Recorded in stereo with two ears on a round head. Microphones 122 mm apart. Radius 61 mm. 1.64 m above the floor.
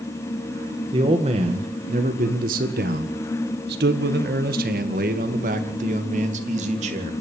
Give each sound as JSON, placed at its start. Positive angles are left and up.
{"t": 0.9, "sound": "a man speaking", "side_deg": -35, "distance_m": 2.0}